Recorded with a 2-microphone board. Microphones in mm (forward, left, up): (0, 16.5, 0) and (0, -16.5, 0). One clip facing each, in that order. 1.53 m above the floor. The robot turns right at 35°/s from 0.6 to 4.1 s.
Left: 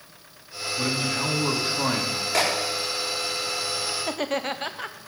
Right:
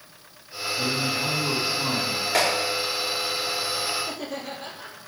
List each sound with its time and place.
0.8 s a man speaking: 40° left, 2.5 m; by 2.2 s 85° left, 2.5 m
2.3 s a clap: 15° right (ahead or behind), 4.5 m; by 2.5 s 10° right (ahead or behind), 4.5 m
4.0 s laughter: 70° left (ahead or behind), 0.8 m